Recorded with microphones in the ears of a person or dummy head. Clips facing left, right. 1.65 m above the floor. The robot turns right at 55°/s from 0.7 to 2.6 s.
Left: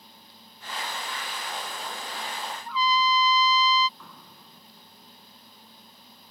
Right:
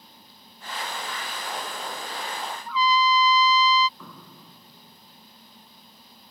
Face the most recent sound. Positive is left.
turn(degrees=-80)